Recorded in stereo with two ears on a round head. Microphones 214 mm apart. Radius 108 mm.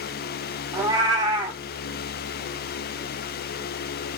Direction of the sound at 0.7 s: 15° right (ahead or behind).